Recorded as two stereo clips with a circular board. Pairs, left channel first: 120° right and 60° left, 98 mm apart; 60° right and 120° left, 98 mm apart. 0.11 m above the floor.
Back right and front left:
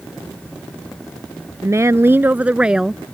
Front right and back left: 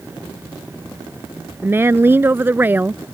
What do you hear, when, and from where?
1.6 s a woman speaking: 75° left; by 3.0 s 145° left